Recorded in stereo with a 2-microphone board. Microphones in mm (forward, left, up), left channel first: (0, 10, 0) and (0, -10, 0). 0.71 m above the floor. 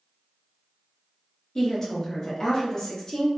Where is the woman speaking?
25° left (ahead or behind), 0.7 m.